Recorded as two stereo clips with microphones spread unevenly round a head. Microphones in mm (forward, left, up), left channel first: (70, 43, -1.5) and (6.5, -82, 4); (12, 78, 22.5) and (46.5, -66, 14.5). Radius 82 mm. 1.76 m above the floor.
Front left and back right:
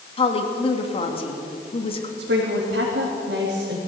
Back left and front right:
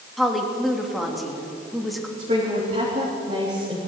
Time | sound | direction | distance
0.2 | a woman speaking | 15° left | 3 m
2.2 | a woman speaking | 130° right | 3.5 m